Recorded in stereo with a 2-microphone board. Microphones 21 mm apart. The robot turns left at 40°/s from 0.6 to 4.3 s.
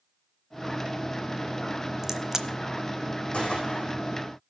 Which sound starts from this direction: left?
A gunshot, at 3.3 s.